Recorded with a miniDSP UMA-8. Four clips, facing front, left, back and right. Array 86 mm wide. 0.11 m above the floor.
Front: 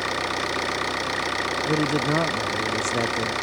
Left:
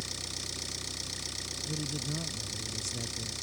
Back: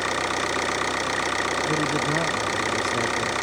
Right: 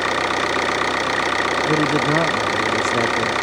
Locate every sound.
0.0 s an engine running: 95° right
1.7 s a man speaking: 75° right